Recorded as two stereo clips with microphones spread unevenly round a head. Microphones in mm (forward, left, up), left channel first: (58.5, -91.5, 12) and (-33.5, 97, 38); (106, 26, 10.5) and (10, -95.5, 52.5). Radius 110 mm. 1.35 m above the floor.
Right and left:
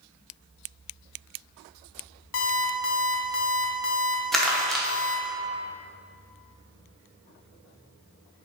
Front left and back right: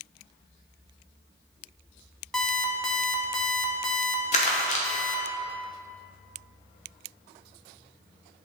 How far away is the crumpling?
About 0.9 m.